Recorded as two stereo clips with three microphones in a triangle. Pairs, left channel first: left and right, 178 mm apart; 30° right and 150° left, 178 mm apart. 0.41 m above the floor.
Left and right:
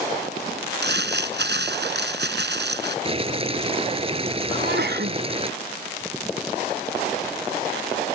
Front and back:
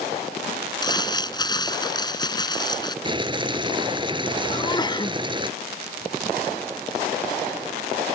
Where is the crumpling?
95° right.